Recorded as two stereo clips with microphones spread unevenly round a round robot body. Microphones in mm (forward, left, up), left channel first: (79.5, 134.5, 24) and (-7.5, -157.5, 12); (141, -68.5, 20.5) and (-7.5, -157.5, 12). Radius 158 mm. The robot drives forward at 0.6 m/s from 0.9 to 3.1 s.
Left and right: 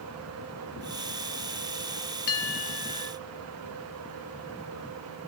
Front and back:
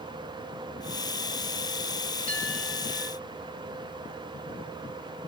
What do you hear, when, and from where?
2.3 s a bell: 100° left, 0.9 m; by 3.1 s 125° left, 1.1 m